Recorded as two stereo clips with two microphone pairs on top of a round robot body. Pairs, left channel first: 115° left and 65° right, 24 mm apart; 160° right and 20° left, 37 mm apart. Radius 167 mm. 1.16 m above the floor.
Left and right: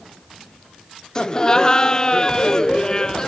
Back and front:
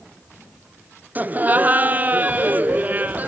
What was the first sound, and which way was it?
Laughter, 60° left.